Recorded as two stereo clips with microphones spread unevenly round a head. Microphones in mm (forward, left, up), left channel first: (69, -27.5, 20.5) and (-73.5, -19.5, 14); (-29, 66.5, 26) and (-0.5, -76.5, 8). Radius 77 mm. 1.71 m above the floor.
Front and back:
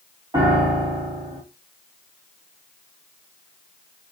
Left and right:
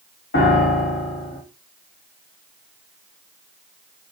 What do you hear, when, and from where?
0.3 s a piano: 110° left, 1.2 m